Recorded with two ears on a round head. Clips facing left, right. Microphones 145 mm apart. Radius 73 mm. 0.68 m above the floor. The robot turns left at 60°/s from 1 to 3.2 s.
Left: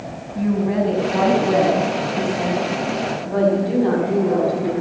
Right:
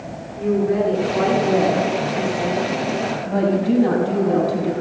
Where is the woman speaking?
95° left, 5 m; by 4.7 s 35° right, 5 m.